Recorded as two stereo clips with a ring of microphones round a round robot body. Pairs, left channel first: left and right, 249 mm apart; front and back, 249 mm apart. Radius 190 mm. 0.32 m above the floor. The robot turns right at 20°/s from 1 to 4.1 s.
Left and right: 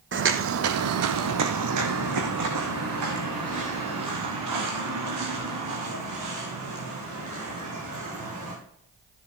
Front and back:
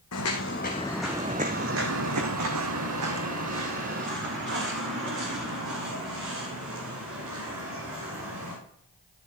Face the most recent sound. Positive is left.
turn(degrees=-125)